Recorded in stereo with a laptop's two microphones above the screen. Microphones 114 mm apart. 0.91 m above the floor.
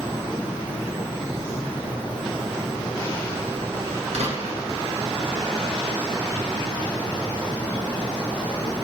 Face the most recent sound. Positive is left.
turn(degrees=-75)  # may be behind; listen again after turning